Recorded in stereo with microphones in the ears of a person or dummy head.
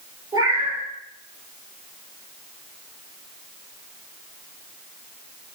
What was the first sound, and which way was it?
A cat meowing, 20° right (ahead or behind).